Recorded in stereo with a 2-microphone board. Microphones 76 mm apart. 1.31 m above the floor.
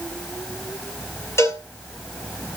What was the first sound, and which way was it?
A cowbell, 40° left (ahead or behind).